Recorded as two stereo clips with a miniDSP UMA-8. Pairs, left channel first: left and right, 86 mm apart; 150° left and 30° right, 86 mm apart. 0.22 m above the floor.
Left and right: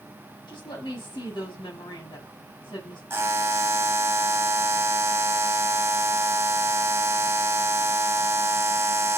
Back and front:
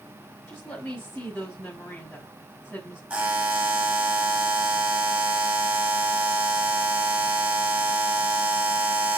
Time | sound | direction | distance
0.5 | a woman speaking | 75° left | 4 m
3.1 | a buzzer | 90° right | 1.7 m